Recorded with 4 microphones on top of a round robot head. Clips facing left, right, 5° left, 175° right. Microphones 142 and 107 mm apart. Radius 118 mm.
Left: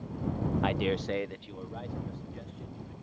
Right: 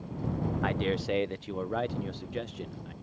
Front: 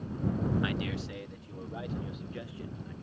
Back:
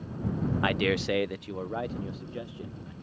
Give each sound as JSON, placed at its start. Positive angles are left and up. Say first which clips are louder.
{"t": 0.6, "sound": "a man speaking", "louder": "right 1 dB, back 8 dB", "azimuth_deg": 160}